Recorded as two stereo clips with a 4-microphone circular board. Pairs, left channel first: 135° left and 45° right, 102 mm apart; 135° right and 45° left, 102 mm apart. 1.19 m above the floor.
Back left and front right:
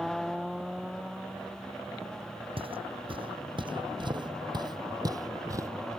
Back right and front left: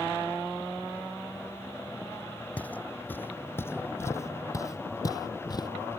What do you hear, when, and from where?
2.6 s footsteps: 60° right; by 5.7 s 95° right